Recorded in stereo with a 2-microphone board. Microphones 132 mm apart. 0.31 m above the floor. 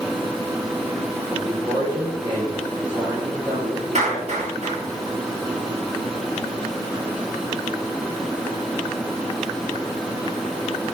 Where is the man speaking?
25° right (ahead or behind), 6 m.